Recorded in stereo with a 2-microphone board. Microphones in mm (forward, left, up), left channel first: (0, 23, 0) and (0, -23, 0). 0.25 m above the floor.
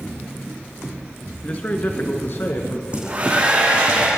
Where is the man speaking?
30° left (ahead or behind), 3 m; by 2.8 s 65° left (ahead or behind), 3 m.